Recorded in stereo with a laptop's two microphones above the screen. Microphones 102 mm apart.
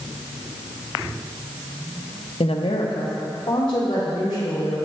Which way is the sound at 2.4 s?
70° left (ahead or behind).